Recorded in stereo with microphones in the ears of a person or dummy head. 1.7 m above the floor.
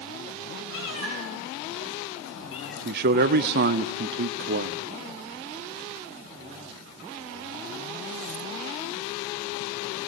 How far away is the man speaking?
About 0.5 m.